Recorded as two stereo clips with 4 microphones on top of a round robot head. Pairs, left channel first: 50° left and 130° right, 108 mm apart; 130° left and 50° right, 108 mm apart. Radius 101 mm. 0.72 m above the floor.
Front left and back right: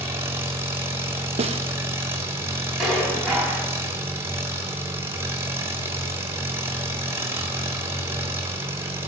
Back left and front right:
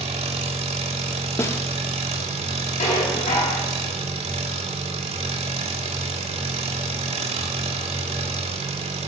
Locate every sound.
0.0 s an engine running: 65° right, 1.7 m
1.4 s a snare drum: 160° right, 0.8 m
2.8 s dishes clattering: 140° left, 4.5 m